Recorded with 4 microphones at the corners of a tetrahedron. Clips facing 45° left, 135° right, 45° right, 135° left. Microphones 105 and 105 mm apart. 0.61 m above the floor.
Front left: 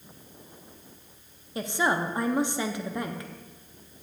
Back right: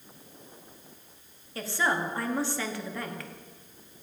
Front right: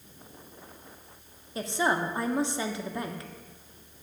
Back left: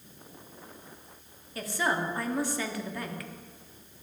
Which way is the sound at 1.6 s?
10° right.